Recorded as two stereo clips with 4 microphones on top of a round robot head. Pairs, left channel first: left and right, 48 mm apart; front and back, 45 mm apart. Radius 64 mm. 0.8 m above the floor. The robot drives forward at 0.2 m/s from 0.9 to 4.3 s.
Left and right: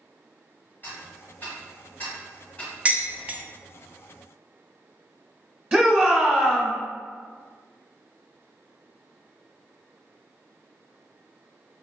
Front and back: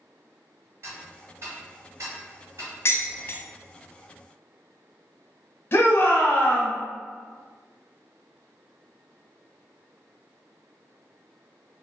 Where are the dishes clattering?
30° right, 0.6 m; by 3.4 s 35° right, 0.5 m.